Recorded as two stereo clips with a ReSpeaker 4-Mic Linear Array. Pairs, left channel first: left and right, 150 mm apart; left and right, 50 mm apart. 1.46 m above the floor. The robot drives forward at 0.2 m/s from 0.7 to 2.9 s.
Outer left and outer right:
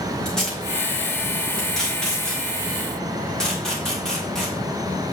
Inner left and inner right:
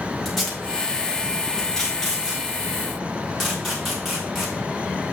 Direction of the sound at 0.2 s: 5° left (ahead or behind).